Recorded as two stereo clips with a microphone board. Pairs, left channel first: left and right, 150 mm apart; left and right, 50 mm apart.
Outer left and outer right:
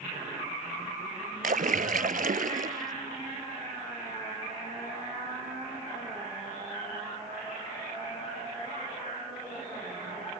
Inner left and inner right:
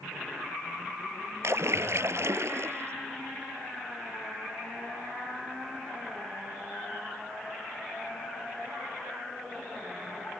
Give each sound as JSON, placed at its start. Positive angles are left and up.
{"t": 1.4, "sound": "a splash", "side_deg": -70}